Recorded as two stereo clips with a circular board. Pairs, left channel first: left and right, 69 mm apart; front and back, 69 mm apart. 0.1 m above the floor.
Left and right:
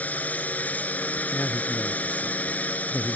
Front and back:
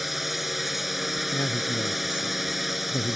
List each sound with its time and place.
0.0 s a drone: 95° left
1.3 s a man speaking: 35° left